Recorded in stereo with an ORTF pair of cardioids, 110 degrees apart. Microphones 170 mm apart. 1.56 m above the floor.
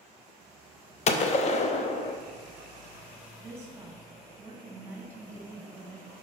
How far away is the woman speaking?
About 2.5 m.